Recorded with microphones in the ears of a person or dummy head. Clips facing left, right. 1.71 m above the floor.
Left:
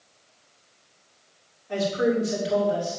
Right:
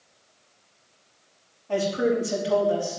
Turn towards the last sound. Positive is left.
turn(degrees=-50)  # may be behind; listen again after turning